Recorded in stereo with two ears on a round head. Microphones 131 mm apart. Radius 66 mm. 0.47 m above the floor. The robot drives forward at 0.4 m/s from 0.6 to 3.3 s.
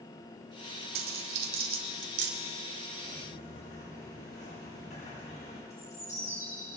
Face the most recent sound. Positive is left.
turn(degrees=20)  # may be behind; listen again after turning